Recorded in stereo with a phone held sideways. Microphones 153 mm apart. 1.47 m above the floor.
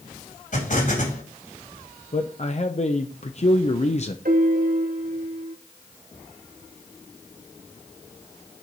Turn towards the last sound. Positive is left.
turn(degrees=-75)  # may be behind; listen again after turning